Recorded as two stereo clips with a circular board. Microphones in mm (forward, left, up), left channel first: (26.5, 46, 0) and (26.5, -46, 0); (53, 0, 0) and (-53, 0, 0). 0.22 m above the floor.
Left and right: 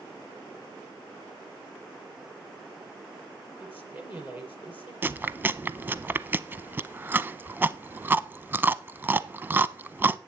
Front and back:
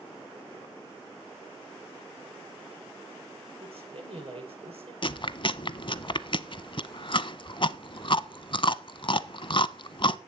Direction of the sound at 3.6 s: 160° right.